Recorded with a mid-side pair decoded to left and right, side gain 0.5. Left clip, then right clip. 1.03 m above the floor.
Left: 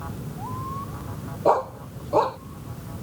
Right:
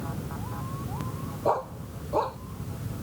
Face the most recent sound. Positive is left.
turn(degrees=40)